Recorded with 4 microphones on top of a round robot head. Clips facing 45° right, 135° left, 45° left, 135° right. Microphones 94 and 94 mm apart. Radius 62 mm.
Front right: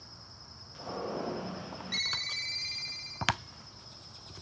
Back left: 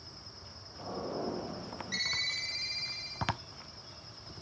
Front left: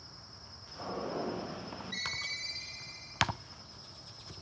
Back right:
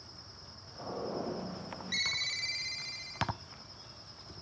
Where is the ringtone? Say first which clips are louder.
Even, back right 1 dB; 130° right, 1.3 m.